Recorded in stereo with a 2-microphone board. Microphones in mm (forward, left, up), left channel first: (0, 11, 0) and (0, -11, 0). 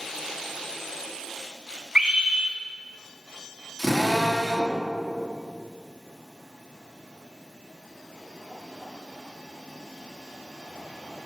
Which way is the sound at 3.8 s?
15° left (ahead or behind).